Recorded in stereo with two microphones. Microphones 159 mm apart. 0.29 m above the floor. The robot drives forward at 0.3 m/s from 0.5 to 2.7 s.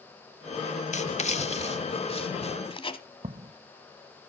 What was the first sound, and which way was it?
Writing, 50° left (ahead or behind).